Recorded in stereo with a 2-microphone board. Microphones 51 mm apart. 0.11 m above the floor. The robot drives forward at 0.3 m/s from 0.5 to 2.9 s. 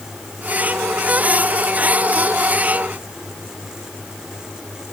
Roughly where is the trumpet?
No trumpet in this recording.